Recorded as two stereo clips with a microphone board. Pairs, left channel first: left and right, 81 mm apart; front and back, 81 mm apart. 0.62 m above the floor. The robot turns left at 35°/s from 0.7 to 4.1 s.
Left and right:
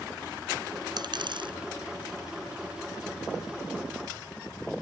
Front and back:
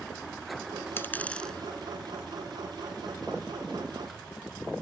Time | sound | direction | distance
1.0 | a dropped coin | 60° right | ?